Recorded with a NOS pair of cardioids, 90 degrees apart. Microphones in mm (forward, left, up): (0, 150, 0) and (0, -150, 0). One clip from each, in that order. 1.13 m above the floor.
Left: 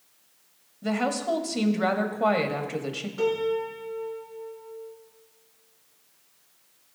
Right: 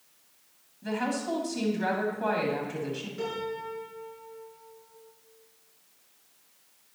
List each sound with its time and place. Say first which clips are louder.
0.8 s a woman speaking: left 4 dB; 50° left, 1.8 m
3.2 s a piano: left 10 dB; 55° left, 4 m